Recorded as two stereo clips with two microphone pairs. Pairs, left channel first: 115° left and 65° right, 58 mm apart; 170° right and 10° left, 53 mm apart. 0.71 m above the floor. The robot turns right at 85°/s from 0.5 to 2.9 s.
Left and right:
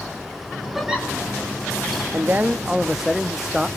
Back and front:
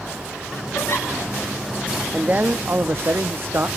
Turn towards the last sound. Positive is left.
turn(degrees=20)